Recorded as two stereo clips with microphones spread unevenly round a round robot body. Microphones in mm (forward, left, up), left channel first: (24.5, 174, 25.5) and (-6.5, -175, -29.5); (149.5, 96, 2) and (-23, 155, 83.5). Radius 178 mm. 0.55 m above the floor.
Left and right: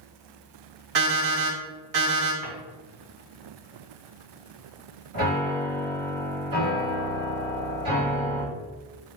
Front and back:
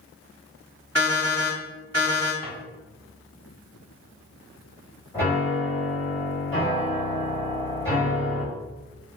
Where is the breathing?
No breathing in this recording.